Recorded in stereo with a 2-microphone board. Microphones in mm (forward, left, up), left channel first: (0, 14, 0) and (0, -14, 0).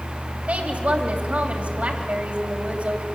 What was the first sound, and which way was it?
A woman speaking, 65° right (ahead or behind).